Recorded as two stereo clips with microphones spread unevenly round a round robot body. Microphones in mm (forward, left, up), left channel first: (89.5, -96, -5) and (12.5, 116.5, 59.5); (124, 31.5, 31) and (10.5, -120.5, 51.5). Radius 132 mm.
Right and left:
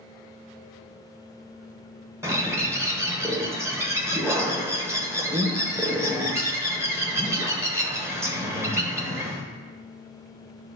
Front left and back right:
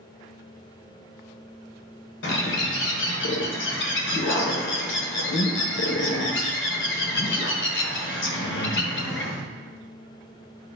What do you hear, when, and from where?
2.2 s a bird: 35° left, 1.4 m